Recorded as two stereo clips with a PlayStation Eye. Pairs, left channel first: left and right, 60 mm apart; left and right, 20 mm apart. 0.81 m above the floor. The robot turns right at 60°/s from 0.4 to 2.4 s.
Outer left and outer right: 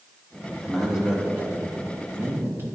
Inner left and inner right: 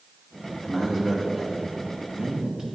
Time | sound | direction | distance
0.6 | a man speaking | straight behind | 1.0 m